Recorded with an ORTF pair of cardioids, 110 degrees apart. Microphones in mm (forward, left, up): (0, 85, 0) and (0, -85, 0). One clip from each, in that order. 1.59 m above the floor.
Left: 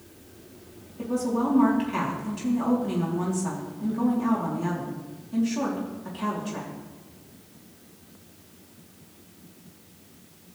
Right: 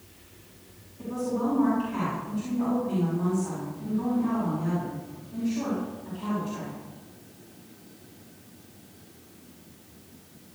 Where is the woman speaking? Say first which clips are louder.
Left 3 dB; 60° left, 3 m.